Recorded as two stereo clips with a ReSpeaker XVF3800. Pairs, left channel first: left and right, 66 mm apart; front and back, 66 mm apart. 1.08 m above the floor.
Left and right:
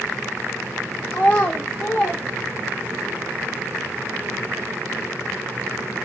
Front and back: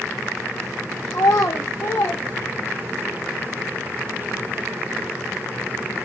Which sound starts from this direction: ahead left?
A child speaking, at 1.1 s.